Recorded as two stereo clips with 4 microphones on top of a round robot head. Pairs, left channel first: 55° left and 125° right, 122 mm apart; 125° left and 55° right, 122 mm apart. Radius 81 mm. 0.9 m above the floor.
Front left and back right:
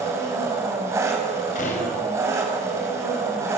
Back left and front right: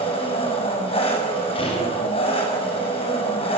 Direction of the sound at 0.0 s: 170° left.